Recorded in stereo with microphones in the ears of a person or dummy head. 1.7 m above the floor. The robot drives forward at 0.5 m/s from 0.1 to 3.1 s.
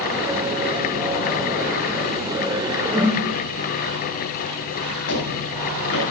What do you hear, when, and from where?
2.9 s a whoosh: centre (ahead or behind), 8 m
5.1 s footsteps: 75° left (ahead or behind), 6.5 m